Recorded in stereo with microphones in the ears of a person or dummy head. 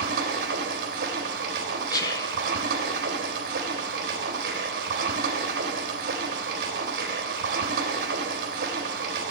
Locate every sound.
0.0 s running water: 60° right (ahead or behind), 3.5 m
1.9 s whispering: 20° left (ahead or behind), 1.0 m